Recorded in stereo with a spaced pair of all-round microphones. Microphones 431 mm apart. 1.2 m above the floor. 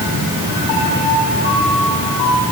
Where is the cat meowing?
No cat meowing in this recording.